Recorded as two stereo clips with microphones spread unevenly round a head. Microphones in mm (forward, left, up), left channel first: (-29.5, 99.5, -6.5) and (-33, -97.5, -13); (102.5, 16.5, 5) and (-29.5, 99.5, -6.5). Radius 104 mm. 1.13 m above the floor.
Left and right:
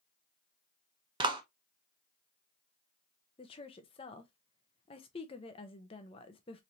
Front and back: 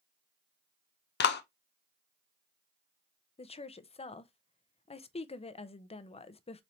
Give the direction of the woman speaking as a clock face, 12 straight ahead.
11 o'clock.